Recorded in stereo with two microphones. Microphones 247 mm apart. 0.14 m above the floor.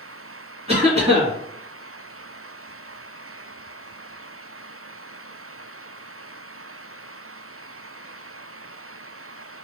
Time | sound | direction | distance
0.7 | a cough | 25° right (ahead or behind) | 1.5 m